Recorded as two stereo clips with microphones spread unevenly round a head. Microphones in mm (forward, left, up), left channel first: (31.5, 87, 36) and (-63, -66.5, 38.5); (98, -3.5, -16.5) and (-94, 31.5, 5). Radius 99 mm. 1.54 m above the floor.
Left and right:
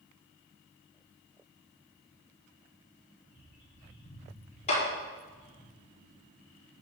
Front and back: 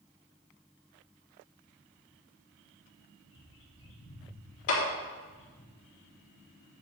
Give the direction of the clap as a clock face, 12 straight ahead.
12 o'clock.